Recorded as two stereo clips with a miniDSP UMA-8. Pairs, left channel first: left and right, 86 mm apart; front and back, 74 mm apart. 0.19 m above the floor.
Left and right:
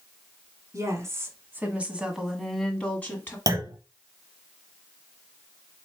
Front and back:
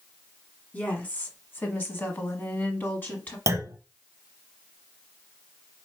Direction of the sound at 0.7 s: 60° right.